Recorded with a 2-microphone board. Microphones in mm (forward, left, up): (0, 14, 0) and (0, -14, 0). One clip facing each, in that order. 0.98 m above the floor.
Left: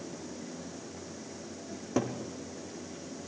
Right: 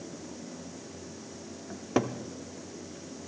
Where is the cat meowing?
No cat meowing in this recording.